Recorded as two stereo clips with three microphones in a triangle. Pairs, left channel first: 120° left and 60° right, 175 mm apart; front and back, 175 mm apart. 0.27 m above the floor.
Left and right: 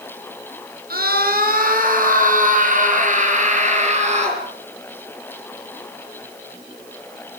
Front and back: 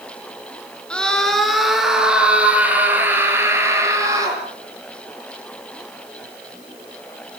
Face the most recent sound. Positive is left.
turn(degrees=-110)